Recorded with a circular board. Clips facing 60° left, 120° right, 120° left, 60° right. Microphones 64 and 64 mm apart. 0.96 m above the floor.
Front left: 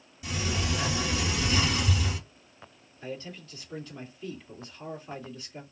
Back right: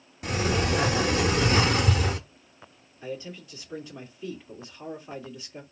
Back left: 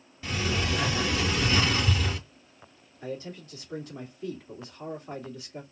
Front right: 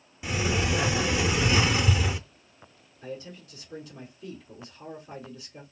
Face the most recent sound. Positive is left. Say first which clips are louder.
# back right 2 dB, back left 2 dB
turn(degrees=165)